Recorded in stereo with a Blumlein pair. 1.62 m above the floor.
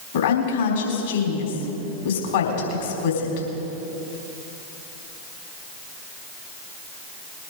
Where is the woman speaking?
55° left, 4 m.